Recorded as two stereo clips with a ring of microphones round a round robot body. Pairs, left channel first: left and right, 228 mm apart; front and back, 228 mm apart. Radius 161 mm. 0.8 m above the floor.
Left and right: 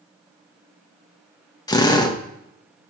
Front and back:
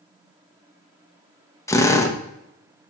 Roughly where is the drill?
Ahead left.